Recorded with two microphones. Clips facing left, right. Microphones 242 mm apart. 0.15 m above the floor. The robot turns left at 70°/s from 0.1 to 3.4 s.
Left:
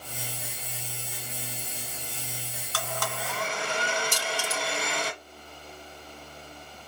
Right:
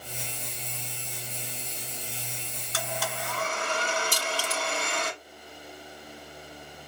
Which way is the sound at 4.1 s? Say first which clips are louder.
Even; 40° right (ahead or behind).